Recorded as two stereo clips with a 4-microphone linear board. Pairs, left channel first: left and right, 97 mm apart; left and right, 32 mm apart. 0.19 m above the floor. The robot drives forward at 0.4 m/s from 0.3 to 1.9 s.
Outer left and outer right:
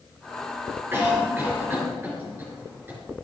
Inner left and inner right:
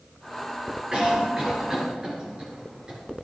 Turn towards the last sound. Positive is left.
turn(degrees=-25)  # may be behind; listen again after turning